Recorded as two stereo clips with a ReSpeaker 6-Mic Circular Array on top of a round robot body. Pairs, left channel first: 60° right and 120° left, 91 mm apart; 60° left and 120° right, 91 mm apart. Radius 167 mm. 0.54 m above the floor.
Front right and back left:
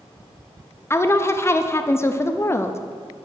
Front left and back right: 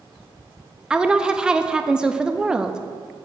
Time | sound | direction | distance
0.9 | a woman speaking | 45° right | 0.6 m